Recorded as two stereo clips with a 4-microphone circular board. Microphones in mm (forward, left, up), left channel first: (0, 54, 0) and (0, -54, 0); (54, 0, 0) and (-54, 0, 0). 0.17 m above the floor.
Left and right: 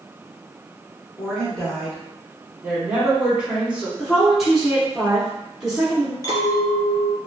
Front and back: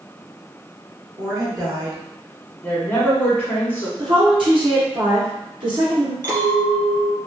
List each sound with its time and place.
1.2 s a woman speaking: 175° left, 1.7 m
2.6 s a woman speaking: 30° right, 1.2 m
4.0 s a woman speaking: 175° right, 2.0 m
6.2 s a clink: 140° left, 1.7 m